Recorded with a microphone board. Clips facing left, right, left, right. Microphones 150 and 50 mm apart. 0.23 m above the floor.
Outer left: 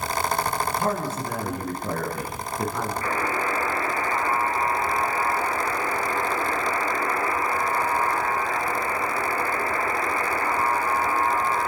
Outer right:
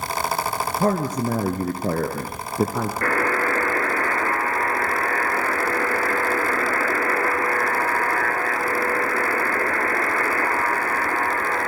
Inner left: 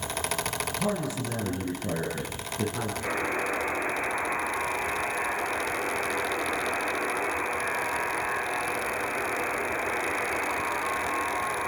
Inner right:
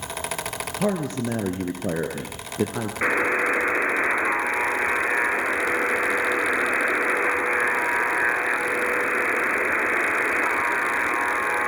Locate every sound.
0.8 s a man speaking: 45° right (ahead or behind), 3.5 m
3.0 s a buzzer: 65° right (ahead or behind), 4 m